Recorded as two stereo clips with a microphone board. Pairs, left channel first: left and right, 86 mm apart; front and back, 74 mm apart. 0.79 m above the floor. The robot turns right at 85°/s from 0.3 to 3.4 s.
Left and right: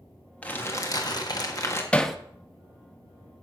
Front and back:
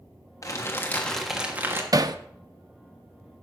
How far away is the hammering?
About 0.7 m.